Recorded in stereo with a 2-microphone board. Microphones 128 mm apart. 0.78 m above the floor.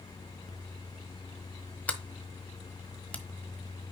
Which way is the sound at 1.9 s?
10° left (ahead or behind).